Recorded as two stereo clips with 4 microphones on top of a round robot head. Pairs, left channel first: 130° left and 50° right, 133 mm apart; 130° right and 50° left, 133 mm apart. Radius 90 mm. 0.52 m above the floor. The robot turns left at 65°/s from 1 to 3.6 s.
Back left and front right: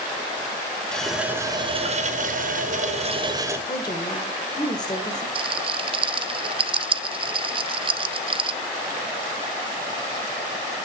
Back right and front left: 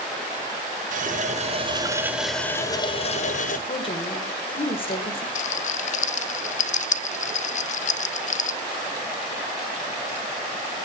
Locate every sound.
0.9 s a running tap: 45° left, 1.4 m; by 3.6 s 125° right, 1.4 m
3.7 s a woman speaking: 175° right, 2.0 m
5.3 s a rattle: 100° right, 0.5 m